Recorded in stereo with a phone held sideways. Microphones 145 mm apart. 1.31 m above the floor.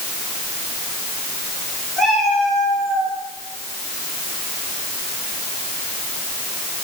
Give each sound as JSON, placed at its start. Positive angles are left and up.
{"t": 2.0, "sound": "a cat meowing", "side_deg": 5, "distance_m": 8.5}